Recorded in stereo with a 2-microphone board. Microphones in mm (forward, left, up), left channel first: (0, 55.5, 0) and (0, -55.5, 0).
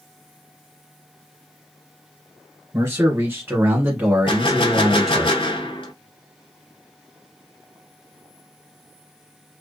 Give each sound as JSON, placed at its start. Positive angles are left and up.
{"t": 2.7, "sound": "a man speaking", "side_deg": -25, "distance_m": 1.5}
{"t": 4.3, "sound": "a gunshot", "side_deg": 50, "distance_m": 0.5}